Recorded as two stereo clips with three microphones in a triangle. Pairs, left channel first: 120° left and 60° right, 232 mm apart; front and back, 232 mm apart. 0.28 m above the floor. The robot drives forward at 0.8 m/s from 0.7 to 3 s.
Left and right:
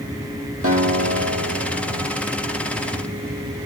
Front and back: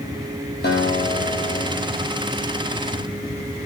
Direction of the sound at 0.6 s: 45° right.